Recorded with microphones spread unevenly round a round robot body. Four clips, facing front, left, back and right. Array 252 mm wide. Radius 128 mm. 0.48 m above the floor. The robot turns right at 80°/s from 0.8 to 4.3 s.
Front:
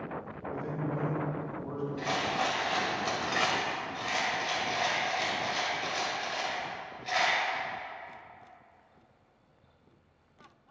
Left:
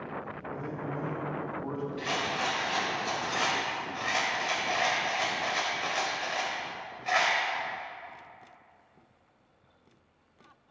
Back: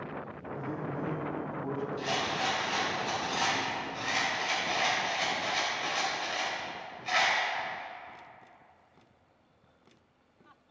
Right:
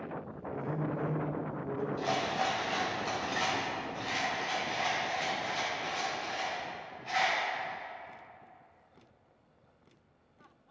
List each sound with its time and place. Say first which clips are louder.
0.5 s a man speaking: right 2 dB, front 2 dB; 65° left, 3 m; by 1.9 s 150° left, 3 m
2.0 s a rattle: right 1 dB, front 5 dB; 95° right, 2.5 m; by 7.4 s 95° left, 2.5 m